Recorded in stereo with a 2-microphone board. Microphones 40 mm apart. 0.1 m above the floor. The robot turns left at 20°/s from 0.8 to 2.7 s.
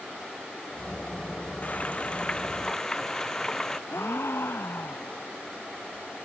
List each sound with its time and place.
1.6 s frying: 35° left (ahead or behind); by 3.8 s 10° left (ahead or behind)
3.9 s a gasp: 65° left (ahead or behind)